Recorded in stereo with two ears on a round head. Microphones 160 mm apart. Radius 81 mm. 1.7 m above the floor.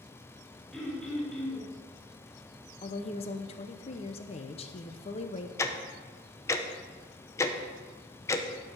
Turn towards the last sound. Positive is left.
turn(degrees=15)  # may be behind; listen again after turning